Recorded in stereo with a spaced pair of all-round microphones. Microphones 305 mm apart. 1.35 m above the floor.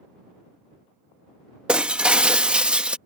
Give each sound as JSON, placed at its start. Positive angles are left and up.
{"t": 1.7, "sound": "breaking glass", "side_deg": -5}